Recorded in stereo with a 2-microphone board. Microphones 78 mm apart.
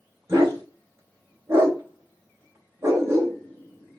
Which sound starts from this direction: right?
A dog barking, at 0.3 s.